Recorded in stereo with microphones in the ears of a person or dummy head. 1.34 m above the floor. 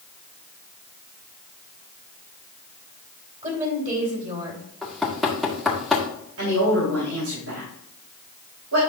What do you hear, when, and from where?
3.4 s a woman speaking: 35° right (ahead or behind), 3 m
4.8 s knocking: 5° right (ahead or behind), 1.5 m
6.4 s a woman speaking: 85° right, 3.5 m